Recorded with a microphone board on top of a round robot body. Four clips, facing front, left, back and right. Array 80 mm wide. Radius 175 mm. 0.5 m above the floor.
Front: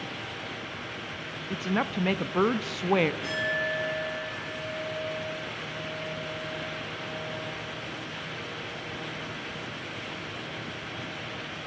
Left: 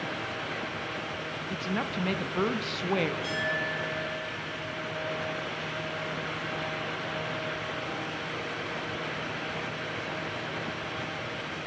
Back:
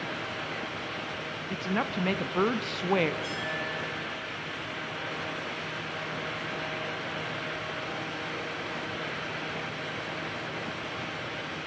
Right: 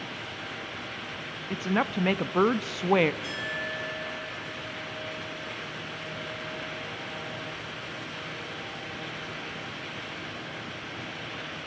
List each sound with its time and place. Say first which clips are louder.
1.5 s a woman speaking: right 6 dB, front 2 dB; 80° right, 0.7 m
3.2 s a clink: left 3 dB, front 4 dB; straight ahead, 9 m